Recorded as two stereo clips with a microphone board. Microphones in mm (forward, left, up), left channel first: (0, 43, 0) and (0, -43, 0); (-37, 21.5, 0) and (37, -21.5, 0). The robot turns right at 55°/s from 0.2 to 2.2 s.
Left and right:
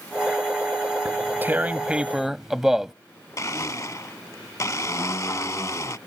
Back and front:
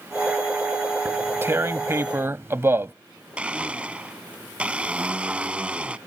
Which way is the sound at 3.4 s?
45° left.